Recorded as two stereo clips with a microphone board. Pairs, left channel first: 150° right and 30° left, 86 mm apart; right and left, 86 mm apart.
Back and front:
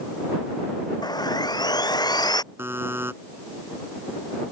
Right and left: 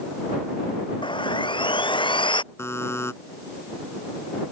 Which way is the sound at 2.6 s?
30° right.